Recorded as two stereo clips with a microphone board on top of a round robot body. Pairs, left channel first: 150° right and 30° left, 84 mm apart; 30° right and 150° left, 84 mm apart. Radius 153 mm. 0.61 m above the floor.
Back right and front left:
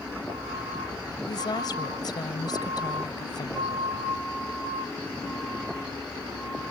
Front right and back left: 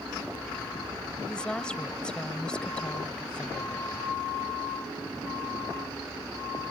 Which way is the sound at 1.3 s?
110° right.